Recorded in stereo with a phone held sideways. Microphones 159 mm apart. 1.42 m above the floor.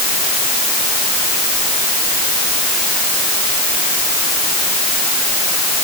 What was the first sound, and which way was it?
Only background noise.